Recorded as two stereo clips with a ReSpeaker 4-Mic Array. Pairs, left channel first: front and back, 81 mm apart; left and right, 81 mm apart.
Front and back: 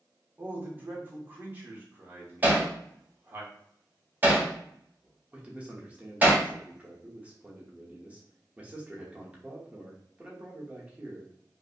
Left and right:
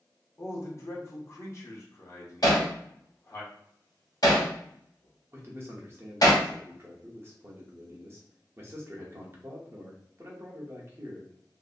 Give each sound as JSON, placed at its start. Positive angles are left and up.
{"t": 0.4, "sound": "a man speaking", "azimuth_deg": 125, "distance_m": 0.9}
{"t": 2.4, "sound": "hammering", "azimuth_deg": 120, "distance_m": 1.1}
{"t": 5.3, "sound": "a man speaking", "azimuth_deg": -120, "distance_m": 0.8}